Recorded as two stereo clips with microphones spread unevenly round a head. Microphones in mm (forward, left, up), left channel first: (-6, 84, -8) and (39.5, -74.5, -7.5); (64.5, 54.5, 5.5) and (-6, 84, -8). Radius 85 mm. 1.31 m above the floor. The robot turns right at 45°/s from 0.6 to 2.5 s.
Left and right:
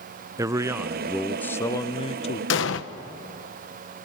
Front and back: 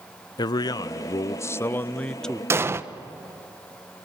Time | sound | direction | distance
0.4 | a man speaking | 10° right | 0.5 m
2.5 | an explosion | 105° left | 1.1 m